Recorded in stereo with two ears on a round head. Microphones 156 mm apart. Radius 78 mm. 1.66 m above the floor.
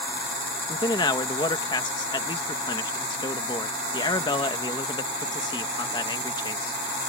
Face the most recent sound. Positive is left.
turn(degrees=25)  # may be behind; listen again after turning